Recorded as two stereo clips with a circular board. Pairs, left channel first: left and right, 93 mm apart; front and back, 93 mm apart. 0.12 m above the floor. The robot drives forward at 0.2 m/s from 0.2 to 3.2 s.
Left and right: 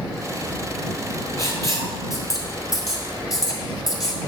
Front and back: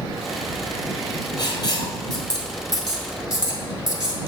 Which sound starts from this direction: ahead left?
Writing, at 1.4 s.